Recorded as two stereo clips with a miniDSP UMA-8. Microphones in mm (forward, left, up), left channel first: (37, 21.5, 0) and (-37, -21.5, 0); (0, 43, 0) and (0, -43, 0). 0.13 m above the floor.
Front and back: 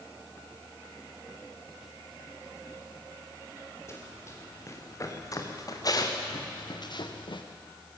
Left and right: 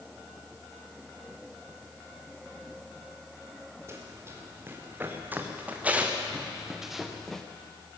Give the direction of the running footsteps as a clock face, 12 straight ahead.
1 o'clock.